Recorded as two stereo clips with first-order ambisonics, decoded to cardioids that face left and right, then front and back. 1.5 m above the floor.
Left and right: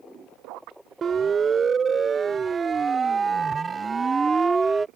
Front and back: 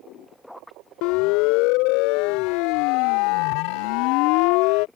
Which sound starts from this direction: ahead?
A siren, at 1.0 s.